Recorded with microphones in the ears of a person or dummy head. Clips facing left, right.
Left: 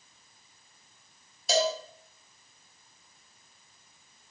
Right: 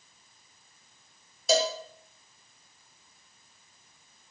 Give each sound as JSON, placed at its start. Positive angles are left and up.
{"t": 1.5, "sound": "a cowbell", "side_deg": -75, "distance_m": 0.6}